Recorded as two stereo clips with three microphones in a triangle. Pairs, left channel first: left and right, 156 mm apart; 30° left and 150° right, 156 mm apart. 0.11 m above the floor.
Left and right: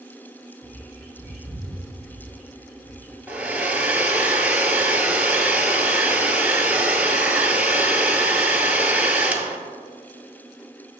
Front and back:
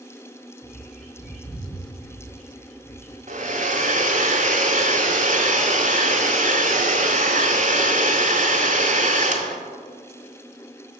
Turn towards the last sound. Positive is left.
turn(degrees=-170)